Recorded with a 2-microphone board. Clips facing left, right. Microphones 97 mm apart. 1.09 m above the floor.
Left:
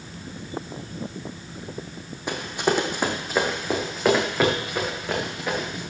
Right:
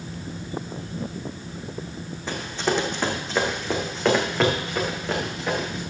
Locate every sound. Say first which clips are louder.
2.3 s running footsteps: left 2 dB; 15° left (ahead or behind), 1.9 m; by 5.8 s centre (ahead or behind), 4 m